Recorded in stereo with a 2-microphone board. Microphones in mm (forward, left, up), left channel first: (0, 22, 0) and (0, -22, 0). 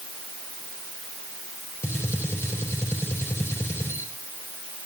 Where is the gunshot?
75° left (ahead or behind), 4 m.